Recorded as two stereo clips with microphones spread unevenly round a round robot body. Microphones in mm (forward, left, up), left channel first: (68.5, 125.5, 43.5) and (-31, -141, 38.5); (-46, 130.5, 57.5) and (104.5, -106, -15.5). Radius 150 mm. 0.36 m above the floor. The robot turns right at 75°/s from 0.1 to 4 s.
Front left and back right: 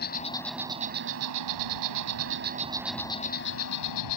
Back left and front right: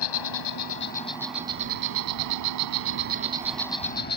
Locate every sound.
0.0 s an insect: 130° left; by 4.2 s 60° left